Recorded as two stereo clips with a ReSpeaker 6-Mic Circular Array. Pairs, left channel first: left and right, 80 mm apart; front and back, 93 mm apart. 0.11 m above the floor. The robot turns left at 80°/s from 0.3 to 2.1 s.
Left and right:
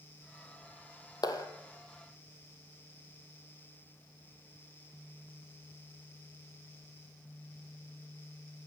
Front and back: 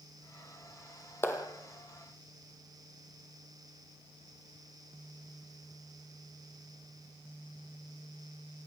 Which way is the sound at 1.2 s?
60° left.